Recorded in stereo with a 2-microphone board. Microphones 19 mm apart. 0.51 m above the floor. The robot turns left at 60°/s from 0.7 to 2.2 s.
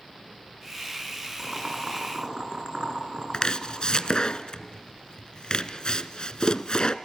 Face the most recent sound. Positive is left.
turn(degrees=45)  # may be behind; listen again after turning